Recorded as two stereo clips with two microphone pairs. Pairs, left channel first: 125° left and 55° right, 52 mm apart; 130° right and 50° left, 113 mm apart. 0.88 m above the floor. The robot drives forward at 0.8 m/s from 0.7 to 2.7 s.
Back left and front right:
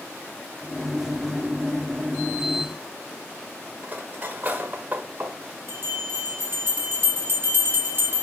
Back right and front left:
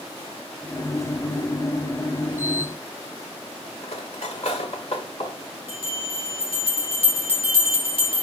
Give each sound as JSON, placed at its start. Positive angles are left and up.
{"t": 3.8, "sound": "cutlery clinking", "azimuth_deg": -110, "distance_m": 1.7}
{"t": 5.7, "sound": "a bell", "azimuth_deg": -100, "distance_m": 4.0}